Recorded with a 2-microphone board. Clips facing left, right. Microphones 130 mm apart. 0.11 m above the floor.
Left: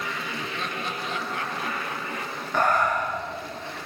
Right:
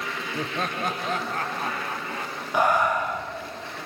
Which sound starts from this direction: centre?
Breathing, at 2.5 s.